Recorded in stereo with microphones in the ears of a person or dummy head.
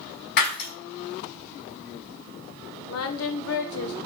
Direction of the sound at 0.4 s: 55° left (ahead or behind).